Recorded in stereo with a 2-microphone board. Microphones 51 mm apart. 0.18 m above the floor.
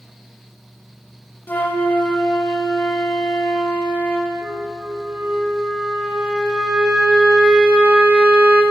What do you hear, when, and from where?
1.5 s a flute: 45° left (ahead or behind), 0.6 m
4.4 s a flute: 20° right (ahead or behind), 0.7 m